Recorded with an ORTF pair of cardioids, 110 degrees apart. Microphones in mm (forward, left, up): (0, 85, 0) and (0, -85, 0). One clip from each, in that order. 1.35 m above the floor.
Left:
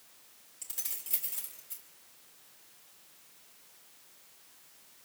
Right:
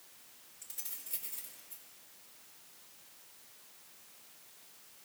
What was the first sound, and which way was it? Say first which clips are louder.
Keys jangling: left 6 dB; 45° left.